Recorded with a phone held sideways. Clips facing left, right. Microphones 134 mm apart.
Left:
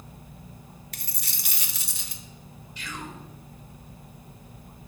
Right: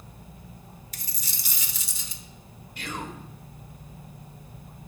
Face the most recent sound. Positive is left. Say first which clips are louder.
# right 3 dB
turn(degrees=-60)  # may be behind; listen again after turning